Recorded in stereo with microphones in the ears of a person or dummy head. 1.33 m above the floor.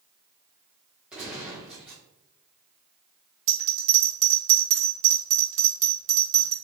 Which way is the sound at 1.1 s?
Centre (ahead or behind).